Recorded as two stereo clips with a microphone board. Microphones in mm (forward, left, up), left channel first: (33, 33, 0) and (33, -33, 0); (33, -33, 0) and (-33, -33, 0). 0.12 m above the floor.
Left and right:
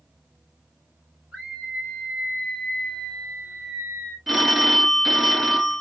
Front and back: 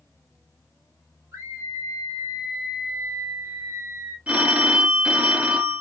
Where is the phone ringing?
175° right, 0.7 m.